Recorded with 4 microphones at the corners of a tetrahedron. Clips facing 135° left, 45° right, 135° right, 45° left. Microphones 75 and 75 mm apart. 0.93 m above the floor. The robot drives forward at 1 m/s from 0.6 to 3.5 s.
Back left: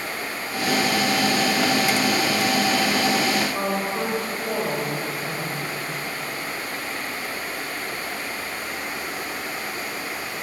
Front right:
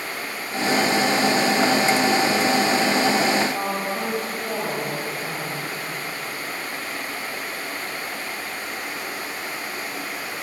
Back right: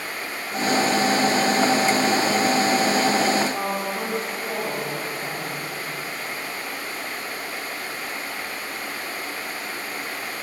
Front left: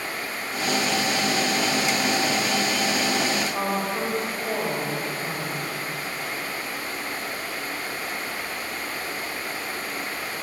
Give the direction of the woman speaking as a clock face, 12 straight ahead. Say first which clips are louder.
Back left 1 dB, even; 8 o'clock.